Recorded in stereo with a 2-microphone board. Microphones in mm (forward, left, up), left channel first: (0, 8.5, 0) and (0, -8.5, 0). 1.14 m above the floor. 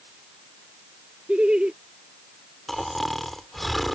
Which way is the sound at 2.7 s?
5° left (ahead or behind).